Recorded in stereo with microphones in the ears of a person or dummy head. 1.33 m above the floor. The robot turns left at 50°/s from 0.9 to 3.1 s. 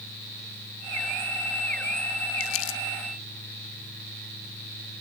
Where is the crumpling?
70° left (ahead or behind), 0.7 m; by 2.8 s 65° left (ahead or behind), 0.7 m.